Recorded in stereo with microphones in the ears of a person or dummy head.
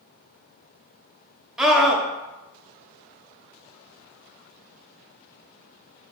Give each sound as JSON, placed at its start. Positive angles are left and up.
{"t": 1.6, "sound": "a scream", "side_deg": -5, "distance_m": 0.5}